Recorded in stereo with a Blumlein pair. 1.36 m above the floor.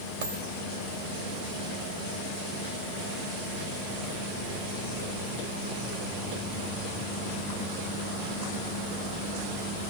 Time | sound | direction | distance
0.2 | a dropped coin | 65° right | 2.5 m